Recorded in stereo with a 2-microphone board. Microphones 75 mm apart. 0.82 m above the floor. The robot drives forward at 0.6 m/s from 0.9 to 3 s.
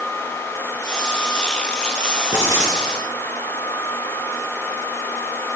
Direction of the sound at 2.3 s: 35° right (ahead or behind).